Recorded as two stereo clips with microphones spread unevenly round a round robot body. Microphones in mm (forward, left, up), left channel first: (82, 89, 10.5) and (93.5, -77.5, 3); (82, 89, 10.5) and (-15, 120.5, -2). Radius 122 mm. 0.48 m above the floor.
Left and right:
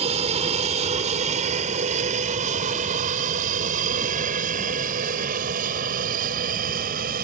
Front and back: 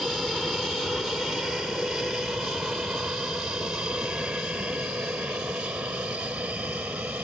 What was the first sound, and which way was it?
An aircraft, 110° right.